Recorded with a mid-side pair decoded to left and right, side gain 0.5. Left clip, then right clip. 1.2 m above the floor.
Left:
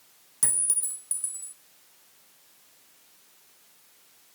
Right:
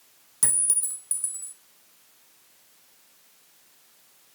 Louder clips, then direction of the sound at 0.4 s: Right 2 dB; 15° right.